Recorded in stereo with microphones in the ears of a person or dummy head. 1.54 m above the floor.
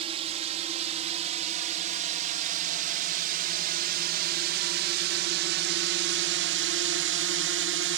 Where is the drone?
35° right (ahead or behind); by 8.0 s 60° right (ahead or behind).